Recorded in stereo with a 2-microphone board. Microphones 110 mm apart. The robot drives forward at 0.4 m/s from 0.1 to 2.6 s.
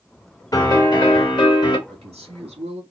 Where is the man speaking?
70° right (ahead or behind), 1.5 m; by 2.8 s 60° right (ahead or behind), 1.6 m.